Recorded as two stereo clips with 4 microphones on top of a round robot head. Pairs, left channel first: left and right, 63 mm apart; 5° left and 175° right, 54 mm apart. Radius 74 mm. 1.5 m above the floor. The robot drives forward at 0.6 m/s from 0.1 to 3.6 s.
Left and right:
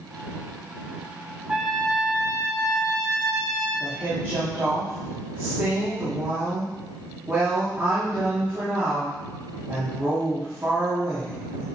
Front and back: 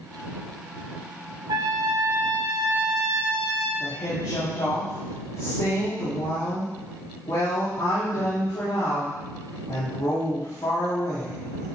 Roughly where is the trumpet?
Behind.